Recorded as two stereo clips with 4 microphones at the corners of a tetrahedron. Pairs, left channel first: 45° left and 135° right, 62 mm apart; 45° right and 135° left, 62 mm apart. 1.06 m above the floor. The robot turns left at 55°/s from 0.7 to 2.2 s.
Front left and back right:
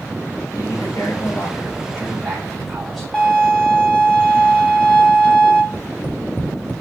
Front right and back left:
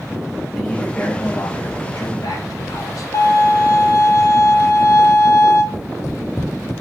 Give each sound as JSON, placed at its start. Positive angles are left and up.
{"t": 0.5, "sound": "a man speaking", "azimuth_deg": 40, "distance_m": 3.5}
{"t": 3.1, "sound": "a violin", "azimuth_deg": -30, "distance_m": 3.0}
{"t": 5.7, "sound": "tapping", "azimuth_deg": -10, "distance_m": 2.5}